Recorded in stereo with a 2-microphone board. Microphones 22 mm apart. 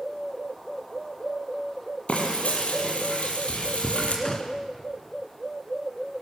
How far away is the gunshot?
About 1.8 m.